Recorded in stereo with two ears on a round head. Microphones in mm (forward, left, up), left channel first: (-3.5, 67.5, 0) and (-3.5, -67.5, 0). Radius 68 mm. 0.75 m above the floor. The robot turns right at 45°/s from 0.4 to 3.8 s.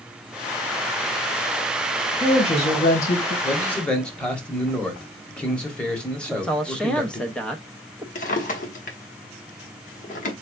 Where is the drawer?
55° left (ahead or behind), 1.0 m.